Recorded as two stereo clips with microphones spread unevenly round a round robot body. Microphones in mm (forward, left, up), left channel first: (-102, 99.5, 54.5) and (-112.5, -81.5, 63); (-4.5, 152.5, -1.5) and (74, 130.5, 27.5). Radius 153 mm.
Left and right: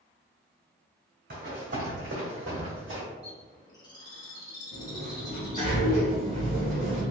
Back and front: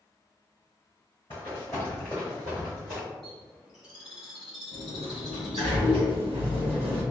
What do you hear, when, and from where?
1.3 s running footsteps: 120° right, 1.9 m; by 3.0 s 75° right, 1.7 m
3.2 s a bird: 115° left, 1.4 m
4.7 s a sliding door: 30° right, 0.8 m